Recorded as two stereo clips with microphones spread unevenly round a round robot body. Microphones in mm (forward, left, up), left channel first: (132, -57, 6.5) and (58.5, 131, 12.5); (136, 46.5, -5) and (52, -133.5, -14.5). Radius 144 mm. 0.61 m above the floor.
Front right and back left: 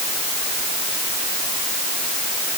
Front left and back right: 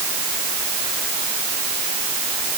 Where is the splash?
I don't hear a splash.